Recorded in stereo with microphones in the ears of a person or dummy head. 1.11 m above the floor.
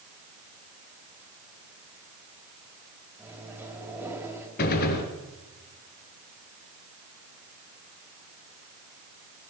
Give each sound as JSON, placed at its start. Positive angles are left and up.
{"t": 3.2, "sound": "a microwave", "side_deg": -10, "distance_m": 4.5}
{"t": 4.6, "sound": "a gunshot", "side_deg": 55, "distance_m": 3.0}